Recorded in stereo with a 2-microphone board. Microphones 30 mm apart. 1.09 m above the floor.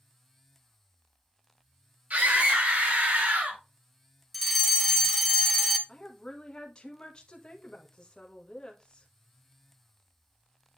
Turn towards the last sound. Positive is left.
turn(degrees=25)  # may be behind; listen again after turning